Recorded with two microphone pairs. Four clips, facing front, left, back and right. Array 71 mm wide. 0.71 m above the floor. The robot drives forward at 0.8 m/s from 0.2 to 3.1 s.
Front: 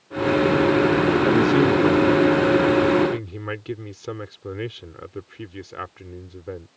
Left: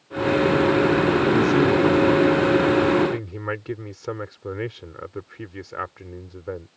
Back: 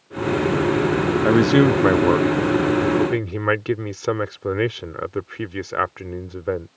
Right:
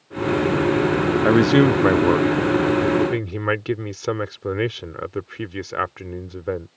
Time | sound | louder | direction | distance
1.2 | a man speaking | right 7 dB, back 5 dB | 105° right | ?